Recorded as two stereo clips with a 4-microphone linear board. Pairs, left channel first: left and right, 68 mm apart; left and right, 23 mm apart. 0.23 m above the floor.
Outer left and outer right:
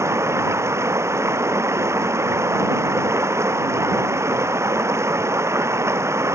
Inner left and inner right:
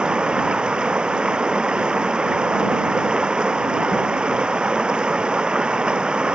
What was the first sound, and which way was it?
Running water, 45° right (ahead or behind).